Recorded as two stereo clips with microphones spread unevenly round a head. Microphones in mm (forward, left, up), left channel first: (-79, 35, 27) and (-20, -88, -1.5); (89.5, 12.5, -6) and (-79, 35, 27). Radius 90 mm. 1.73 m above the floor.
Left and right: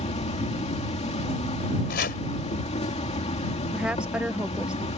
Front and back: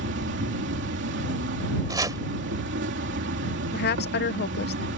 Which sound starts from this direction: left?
Chopping, at 1.9 s.